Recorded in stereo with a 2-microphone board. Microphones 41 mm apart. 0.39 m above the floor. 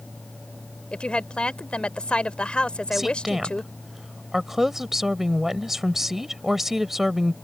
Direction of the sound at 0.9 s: 25° left (ahead or behind).